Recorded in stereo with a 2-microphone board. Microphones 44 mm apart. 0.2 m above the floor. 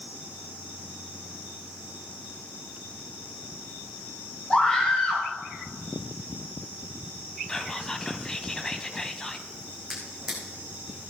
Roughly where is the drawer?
Centre.